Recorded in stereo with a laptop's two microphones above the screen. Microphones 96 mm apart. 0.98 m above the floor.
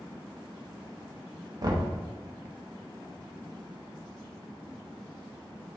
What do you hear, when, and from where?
1.6 s knocking: 40° right (ahead or behind), 0.7 m